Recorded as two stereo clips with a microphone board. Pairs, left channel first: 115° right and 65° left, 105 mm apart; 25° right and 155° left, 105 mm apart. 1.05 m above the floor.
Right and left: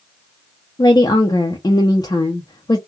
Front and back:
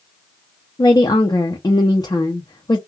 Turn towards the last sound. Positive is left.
turn(degrees=-70)